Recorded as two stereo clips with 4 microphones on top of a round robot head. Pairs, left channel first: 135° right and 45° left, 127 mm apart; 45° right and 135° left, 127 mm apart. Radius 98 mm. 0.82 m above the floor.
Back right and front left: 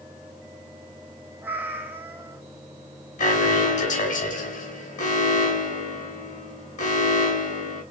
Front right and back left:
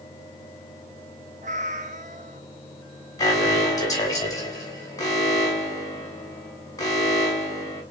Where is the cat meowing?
115° left, 0.6 m.